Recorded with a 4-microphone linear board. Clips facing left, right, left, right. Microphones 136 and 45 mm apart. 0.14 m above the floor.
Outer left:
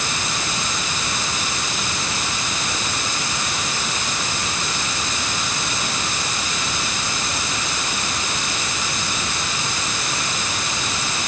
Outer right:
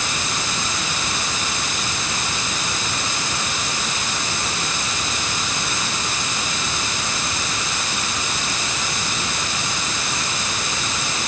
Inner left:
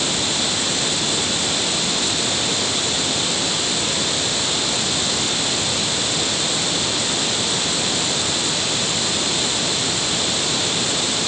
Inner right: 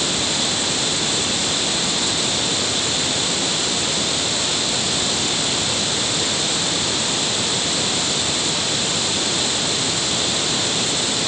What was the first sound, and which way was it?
Only background noise.